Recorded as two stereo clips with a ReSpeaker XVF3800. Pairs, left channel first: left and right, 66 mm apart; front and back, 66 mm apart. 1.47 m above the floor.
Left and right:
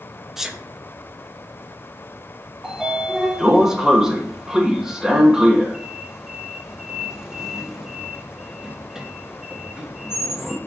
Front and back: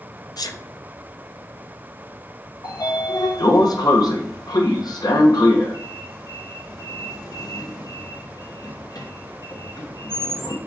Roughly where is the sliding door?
Ahead.